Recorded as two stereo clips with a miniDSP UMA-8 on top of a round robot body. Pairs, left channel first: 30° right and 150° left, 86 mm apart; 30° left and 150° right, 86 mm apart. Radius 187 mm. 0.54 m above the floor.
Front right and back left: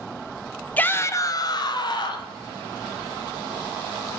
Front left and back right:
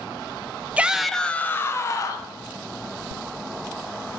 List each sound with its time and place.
0.8 s a shout: 90° right, 0.9 m; by 2.3 s 10° right, 1.5 m